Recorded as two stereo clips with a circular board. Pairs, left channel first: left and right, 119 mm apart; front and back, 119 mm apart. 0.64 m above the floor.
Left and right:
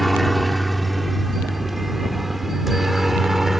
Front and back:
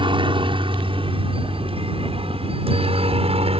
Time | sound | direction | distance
0.0 | a helicopter | straight behind | ?